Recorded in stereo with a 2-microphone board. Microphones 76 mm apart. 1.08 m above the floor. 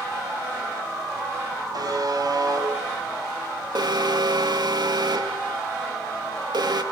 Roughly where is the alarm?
Right.